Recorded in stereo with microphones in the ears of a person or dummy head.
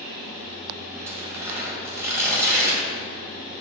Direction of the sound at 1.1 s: 15° right (ahead or behind).